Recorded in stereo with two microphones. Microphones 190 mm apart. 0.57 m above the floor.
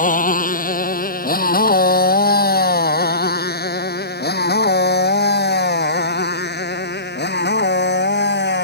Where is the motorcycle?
45° left (ahead or behind); by 8.7 s 65° left (ahead or behind).